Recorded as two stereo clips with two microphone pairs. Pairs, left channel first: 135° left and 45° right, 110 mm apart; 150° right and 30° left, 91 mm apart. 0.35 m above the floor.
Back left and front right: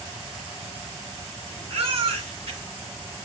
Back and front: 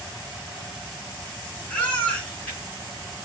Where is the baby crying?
75° right, 2.5 m.